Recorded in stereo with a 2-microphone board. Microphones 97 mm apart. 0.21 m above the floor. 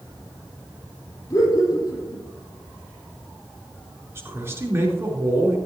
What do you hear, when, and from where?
1.3 s laughter: 40° left (ahead or behind), 6.5 m
4.2 s a man speaking: 30° right (ahead or behind), 4 m